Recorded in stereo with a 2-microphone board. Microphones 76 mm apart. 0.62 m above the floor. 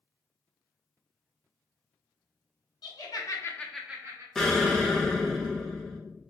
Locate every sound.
2.8 s laughter: 60° left (ahead or behind), 1.1 m; by 4.2 s 40° right (ahead or behind), 0.7 m
4.3 s an explosion: 5° left (ahead or behind), 0.7 m